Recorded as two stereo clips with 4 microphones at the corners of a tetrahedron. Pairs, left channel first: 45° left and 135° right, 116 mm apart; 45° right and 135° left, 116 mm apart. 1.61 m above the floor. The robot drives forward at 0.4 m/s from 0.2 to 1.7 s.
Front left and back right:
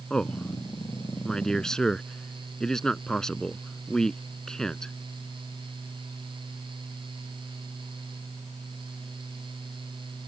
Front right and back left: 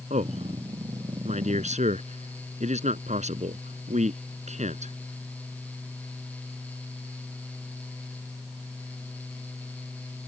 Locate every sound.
0.1 s a man speaking: 130° left